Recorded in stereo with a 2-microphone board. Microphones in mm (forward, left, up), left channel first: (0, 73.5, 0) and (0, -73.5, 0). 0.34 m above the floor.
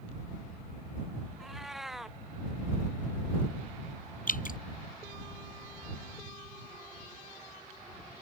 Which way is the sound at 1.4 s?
Centre (ahead or behind).